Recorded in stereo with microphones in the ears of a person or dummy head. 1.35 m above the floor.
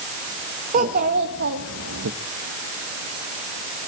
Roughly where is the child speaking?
Right.